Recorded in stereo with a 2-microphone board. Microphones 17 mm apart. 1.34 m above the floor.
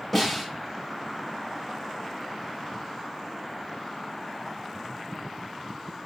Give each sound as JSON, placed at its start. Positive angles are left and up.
{"t": 0.1, "sound": "a snare drum", "side_deg": 15, "distance_m": 2.5}